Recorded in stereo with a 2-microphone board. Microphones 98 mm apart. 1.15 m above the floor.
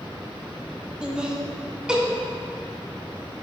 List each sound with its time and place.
1.0 s laughter: 10° right (ahead or behind), 1.5 m